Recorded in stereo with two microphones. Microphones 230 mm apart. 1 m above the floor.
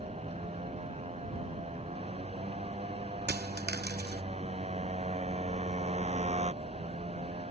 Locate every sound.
0.0 s a motorcycle: 30° right (ahead or behind)
3.3 s a dropped coin: 45° right (ahead or behind)